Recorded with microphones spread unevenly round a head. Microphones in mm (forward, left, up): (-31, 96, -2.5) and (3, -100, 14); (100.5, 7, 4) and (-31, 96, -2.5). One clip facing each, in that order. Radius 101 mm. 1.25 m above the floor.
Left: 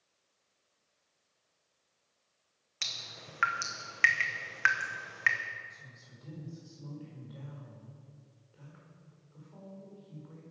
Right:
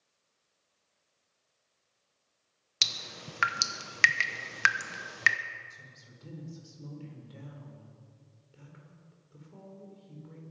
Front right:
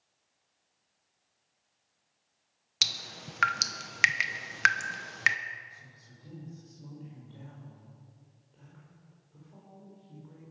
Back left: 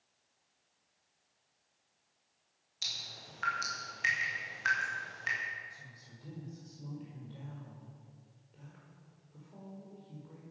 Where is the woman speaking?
130° right, 4.5 m.